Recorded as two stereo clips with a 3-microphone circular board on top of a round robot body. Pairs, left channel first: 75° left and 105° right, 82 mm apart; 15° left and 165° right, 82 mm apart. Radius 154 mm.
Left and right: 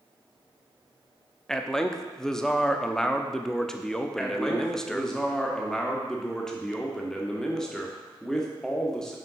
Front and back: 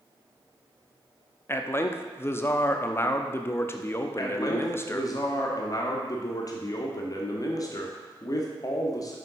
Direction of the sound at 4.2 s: 5° right.